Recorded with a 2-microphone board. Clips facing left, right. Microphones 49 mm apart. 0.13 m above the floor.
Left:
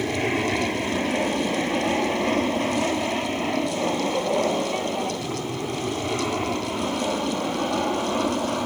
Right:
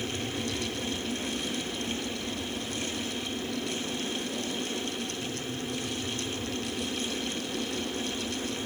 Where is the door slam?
I don't hear a door slam.